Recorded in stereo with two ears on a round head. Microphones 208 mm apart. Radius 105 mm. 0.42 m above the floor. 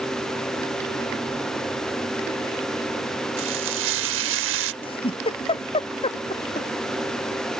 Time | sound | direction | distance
3.4 | frying | 55° right (ahead or behind) | ?
4.8 | a giggle | 25° left (ahead or behind) | ?